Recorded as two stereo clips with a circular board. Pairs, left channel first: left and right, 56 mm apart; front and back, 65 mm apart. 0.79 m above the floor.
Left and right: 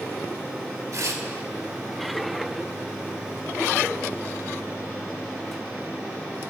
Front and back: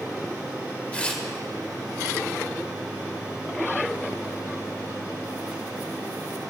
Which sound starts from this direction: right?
Tearing paper, at 0.9 s.